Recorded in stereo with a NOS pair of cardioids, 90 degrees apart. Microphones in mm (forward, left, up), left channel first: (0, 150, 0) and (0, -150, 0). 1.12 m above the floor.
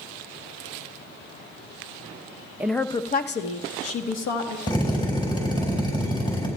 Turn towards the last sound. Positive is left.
turn(degrees=15)